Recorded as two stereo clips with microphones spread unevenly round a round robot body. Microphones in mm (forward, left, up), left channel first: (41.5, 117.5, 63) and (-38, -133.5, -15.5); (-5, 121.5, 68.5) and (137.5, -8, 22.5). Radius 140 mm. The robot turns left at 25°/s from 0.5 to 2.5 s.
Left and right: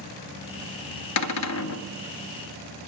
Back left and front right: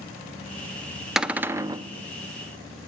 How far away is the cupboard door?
About 0.5 m.